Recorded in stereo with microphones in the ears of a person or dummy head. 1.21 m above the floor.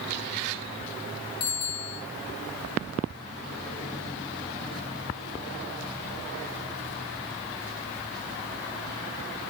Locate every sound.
1.4 s a bicycle bell: 50° left (ahead or behind), 5 m